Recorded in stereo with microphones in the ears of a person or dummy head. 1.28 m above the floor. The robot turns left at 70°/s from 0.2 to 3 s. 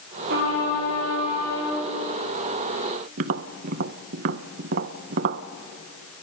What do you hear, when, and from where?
0.3 s a trumpet: 65° right, 5 m; by 1.8 s 170° right, 5 m
3.2 s tapping: 45° right (ahead or behind), 0.6 m